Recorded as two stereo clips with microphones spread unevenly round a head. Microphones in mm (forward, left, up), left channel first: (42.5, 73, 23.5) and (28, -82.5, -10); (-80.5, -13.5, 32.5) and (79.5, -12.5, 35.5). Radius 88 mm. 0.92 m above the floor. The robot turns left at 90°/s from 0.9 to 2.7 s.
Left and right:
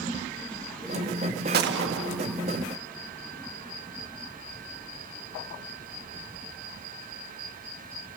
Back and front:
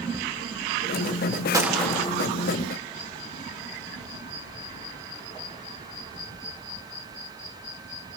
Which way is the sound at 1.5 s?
70° right.